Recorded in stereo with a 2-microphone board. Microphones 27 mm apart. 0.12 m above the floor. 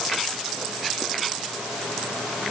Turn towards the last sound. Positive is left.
No sound to turn to.